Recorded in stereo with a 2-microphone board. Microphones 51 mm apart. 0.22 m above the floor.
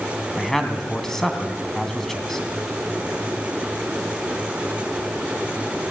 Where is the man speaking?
5° left (ahead or behind), 2 m.